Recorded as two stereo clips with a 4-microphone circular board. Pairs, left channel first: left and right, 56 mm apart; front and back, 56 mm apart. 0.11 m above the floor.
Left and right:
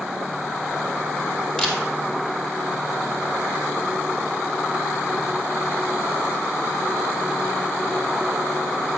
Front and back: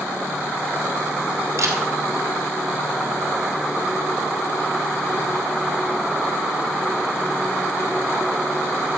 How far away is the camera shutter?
About 2.5 m.